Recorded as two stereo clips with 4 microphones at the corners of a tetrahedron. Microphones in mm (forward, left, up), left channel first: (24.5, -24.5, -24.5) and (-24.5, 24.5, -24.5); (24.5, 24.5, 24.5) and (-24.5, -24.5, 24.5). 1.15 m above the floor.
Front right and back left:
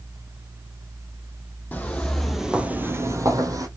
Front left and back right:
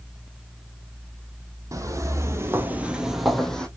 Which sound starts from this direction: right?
Footsteps, at 1.7 s.